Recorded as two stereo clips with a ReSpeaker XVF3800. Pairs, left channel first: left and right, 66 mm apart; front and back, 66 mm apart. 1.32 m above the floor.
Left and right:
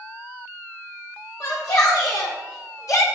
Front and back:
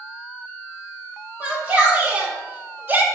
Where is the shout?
115° left, 1.9 m; by 3.0 s 120° left, 1.1 m.